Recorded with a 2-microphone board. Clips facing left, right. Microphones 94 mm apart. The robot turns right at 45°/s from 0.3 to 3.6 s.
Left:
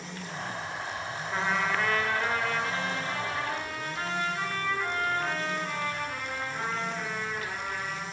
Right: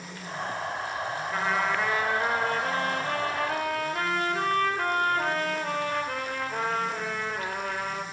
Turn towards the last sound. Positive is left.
turn(degrees=-90)